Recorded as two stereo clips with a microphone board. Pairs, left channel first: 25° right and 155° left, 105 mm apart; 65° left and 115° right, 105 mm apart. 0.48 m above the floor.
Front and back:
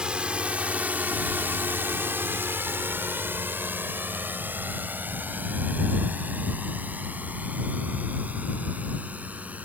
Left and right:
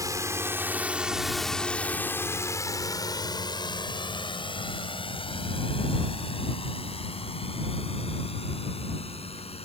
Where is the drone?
130° right; by 9.7 s 80° left.